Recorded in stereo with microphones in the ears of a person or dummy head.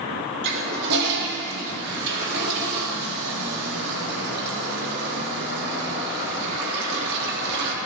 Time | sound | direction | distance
0.4 | a toilet flushing | 60° right (ahead or behind) | 2.5 m